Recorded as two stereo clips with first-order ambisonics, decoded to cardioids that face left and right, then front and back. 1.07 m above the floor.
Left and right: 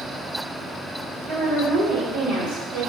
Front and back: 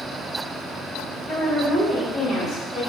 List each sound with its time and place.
1.3 s a woman speaking: 105° right, 1.6 m